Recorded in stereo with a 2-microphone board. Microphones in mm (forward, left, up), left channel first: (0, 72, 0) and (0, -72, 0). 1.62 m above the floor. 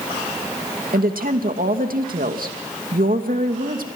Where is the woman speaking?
80° right, 2.5 m.